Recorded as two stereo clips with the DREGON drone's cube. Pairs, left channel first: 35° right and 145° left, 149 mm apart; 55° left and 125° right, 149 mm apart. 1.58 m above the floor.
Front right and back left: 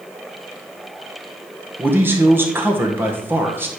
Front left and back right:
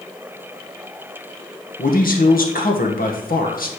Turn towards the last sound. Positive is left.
turn(degrees=70)